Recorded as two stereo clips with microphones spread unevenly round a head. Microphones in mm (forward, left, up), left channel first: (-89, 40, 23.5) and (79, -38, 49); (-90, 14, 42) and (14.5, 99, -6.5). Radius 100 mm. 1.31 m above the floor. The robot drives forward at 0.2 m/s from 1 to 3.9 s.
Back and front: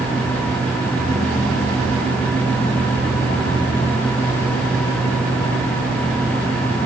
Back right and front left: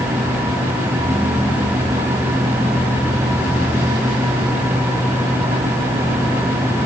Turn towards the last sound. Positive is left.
No sound to turn to.